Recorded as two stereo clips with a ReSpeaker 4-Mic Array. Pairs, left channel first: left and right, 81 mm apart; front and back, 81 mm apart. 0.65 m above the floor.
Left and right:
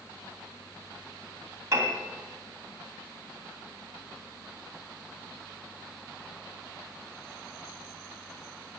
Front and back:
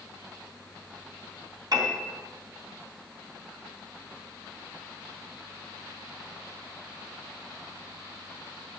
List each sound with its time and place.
1.7 s a piano: 140° right, 3.5 m